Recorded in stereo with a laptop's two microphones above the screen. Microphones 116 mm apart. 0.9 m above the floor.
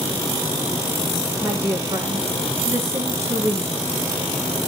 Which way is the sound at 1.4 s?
20° right (ahead or behind).